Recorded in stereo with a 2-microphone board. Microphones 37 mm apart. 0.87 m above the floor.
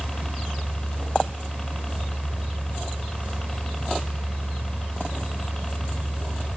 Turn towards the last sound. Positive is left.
turn(degrees=10)  # may be behind; listen again after turning